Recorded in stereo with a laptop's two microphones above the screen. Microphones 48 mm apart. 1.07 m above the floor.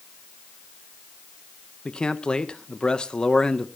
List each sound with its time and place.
1.9 s a man speaking: 20° left (ahead or behind), 0.9 m